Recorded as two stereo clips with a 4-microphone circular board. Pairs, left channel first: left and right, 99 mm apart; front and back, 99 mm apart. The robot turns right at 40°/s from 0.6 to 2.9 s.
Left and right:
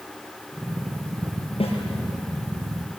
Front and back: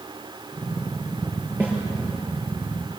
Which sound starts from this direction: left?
A snare drum, at 1.6 s.